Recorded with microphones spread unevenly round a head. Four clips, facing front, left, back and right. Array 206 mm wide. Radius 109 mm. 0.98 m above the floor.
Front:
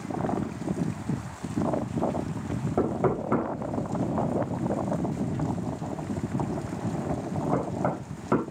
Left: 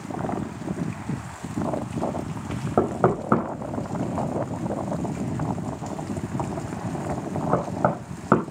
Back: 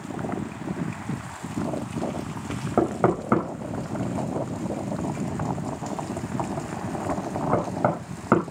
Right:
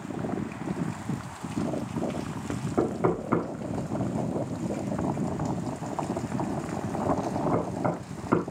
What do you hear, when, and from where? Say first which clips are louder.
2.8 s knocking: left 5 dB, back 4 dB; 130° left, 5 m